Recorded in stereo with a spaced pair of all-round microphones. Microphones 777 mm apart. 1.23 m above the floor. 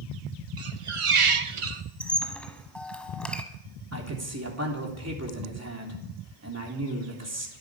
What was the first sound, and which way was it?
A squeak, 40° right (ahead or behind).